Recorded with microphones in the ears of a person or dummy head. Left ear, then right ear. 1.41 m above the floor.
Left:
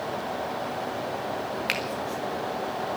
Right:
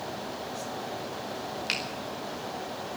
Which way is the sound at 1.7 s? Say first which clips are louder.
Left 2 dB; 25° left (ahead or behind).